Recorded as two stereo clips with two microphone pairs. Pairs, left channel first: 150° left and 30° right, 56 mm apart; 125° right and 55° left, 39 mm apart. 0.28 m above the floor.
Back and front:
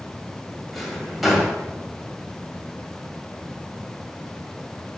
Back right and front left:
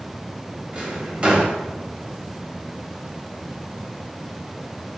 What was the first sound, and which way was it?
A drawer, 60° left.